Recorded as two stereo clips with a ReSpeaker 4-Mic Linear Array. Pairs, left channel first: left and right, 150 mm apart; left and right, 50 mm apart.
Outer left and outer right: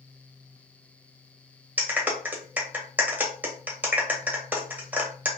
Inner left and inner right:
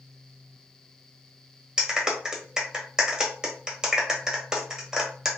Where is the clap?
10° right (ahead or behind), 0.9 m.